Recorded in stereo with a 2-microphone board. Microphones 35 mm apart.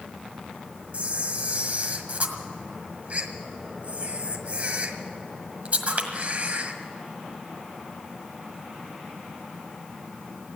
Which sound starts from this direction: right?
A camera shutter, at 0.9 s.